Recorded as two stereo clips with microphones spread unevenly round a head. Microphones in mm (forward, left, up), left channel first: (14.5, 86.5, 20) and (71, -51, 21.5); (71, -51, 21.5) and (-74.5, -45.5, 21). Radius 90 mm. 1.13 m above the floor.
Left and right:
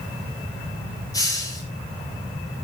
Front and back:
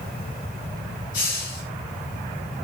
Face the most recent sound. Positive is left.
turn(degrees=45)